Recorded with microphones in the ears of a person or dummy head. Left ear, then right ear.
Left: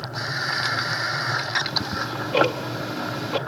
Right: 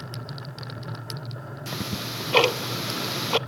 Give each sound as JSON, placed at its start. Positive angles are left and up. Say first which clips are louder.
{"t": 1.7, "sound": "ticking", "louder": "left 6 dB", "side_deg": -45, "distance_m": 0.6}